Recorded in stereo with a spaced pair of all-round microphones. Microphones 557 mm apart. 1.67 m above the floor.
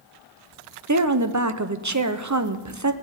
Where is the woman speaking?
30° right (ahead or behind), 0.8 m.